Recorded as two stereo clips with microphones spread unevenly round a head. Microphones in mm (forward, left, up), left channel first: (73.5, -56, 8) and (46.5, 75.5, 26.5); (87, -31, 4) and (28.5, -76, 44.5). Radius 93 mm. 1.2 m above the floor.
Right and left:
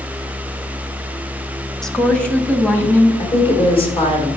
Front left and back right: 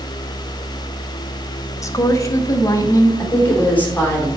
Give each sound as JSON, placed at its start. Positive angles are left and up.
{"t": 1.8, "sound": "a woman speaking", "azimuth_deg": 5, "distance_m": 1.2}
{"t": 3.2, "sound": "a woman speaking", "azimuth_deg": -30, "distance_m": 3.5}